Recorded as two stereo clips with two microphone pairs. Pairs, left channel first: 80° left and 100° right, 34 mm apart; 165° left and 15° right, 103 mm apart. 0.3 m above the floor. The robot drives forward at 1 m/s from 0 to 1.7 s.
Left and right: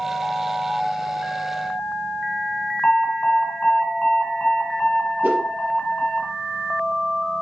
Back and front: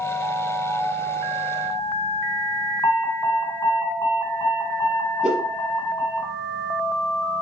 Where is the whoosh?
100° right, 3.5 m.